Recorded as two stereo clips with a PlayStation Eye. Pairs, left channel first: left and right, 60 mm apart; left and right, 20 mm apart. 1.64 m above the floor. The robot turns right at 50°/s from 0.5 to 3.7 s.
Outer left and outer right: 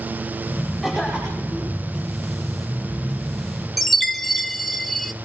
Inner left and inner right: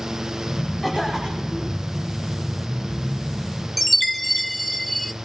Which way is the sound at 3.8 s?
Centre (ahead or behind).